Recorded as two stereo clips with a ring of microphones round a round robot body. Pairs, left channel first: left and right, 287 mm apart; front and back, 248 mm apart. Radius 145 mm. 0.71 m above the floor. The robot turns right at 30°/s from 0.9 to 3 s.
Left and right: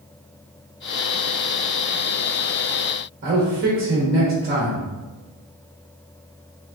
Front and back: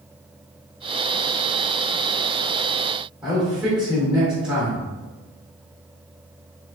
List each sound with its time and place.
3.2 s a man speaking: 95° right, 1.1 m